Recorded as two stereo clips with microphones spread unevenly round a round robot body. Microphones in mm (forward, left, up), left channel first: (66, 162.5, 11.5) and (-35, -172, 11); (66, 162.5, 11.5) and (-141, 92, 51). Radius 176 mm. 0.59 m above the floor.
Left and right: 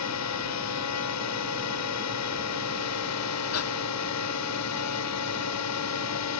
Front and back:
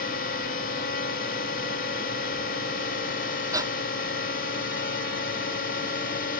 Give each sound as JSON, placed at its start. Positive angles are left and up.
{"t": 0.0, "sound": "a drone", "azimuth_deg": 40}
{"t": 3.5, "sound": "breathing", "azimuth_deg": 125}